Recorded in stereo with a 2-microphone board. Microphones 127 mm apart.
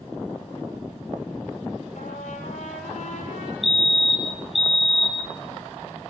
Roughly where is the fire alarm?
Right.